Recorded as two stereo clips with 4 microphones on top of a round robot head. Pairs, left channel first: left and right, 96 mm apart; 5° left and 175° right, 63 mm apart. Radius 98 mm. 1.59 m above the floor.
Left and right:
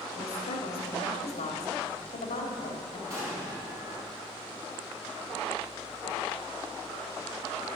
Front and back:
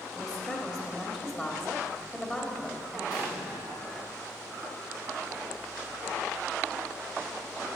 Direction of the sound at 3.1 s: 30° right.